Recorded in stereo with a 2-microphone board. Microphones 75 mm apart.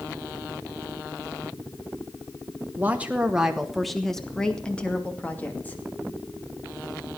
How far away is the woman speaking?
About 1.3 m.